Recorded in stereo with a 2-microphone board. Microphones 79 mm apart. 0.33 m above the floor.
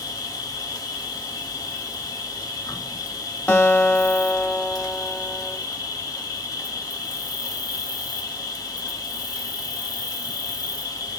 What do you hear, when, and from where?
0.0 s an insect: 50° left (ahead or behind), 0.8 m
3.5 s a guitar: 25° left (ahead or behind), 0.8 m